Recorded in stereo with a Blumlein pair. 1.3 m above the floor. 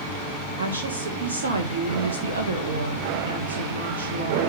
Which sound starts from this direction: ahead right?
A woman speaking, at 0.6 s.